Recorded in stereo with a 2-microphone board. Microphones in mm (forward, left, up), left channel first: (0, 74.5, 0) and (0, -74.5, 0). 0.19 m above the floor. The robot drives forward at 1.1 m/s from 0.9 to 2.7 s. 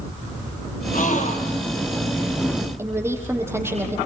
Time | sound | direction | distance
0.9 | a gasp | 60° left (ahead or behind) | 3.5 m
2.8 | a woman speaking | 15° right (ahead or behind) | 6.5 m